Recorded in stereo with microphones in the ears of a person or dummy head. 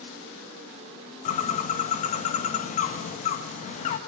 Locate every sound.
1.2 s a bird: 40° left (ahead or behind), 1.9 m